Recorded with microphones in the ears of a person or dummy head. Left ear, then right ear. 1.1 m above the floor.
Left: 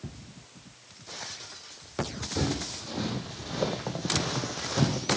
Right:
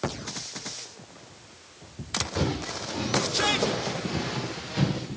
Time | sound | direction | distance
2.4 | footsteps | 5° left (ahead or behind) | 3 m